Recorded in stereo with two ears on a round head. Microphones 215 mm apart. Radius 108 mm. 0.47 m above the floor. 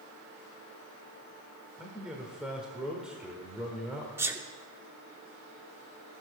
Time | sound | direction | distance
1.8 | a man speaking | 5° right (ahead or behind) | 1.4 m
4.2 | a sneeze | 10° right (ahead or behind) | 0.8 m